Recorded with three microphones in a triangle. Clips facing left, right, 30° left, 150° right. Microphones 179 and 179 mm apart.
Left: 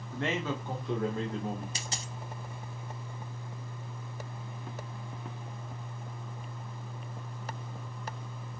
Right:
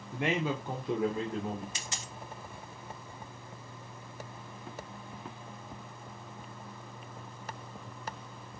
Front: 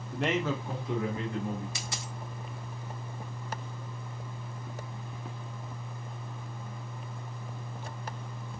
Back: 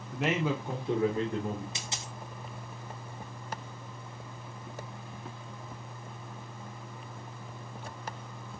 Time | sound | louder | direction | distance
0.1 | a man speaking | right 2 dB, even | 55° right | 0.7 m
1.8 | a dropped coin | left 3 dB, front 1 dB | 145° left | 0.6 m